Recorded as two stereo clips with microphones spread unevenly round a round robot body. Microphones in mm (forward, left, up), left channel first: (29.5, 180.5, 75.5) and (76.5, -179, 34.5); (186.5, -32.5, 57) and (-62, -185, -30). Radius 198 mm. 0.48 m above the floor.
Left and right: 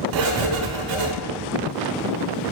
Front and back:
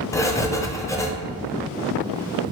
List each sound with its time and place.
0.1 s writing: 55° right, 0.7 m